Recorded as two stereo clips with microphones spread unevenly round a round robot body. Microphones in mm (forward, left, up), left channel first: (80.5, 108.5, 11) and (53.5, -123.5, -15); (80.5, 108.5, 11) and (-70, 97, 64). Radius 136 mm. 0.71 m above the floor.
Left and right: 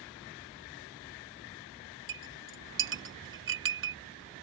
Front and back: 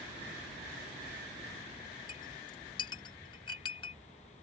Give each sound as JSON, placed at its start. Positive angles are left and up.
{"t": 2.1, "sound": "a clink", "azimuth_deg": -60}